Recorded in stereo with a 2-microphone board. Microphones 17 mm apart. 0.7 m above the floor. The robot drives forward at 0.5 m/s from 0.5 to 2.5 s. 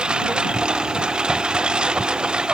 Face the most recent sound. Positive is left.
turn(degrees=-70)  # may be behind; listen again after turning